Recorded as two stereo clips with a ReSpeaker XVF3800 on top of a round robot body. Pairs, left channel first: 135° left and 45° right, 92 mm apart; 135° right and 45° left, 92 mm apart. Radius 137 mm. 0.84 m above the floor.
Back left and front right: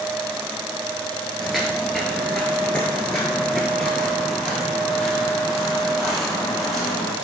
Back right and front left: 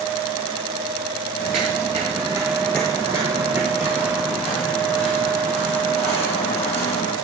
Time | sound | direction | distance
1.4 | footsteps | 45° left | 1.0 m